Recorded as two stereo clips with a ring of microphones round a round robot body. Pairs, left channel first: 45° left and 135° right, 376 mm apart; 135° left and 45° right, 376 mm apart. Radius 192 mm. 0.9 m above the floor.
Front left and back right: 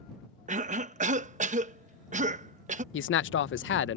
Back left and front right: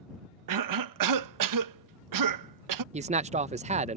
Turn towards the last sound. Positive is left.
turn(degrees=15)